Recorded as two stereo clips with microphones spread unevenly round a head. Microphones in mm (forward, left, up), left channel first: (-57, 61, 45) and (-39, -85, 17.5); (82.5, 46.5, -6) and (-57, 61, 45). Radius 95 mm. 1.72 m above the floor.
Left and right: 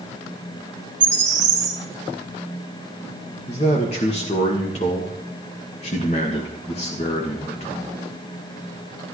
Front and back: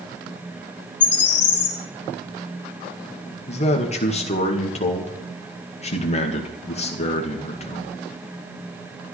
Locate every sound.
1.0 s a bird: 25° right, 2.0 m
3.5 s a man speaking: 40° left, 1.9 m